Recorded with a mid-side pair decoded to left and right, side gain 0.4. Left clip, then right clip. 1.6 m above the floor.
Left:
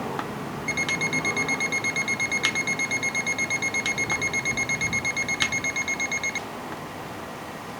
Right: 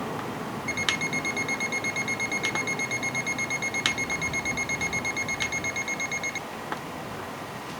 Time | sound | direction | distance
0.7 | an alarm clock | 25° left | ?